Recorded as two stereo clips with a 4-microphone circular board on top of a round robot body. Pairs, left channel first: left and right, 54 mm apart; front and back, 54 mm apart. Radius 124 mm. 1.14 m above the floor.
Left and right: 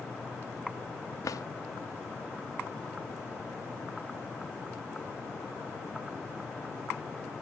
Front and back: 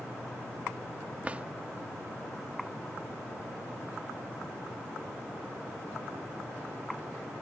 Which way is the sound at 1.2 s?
110° left.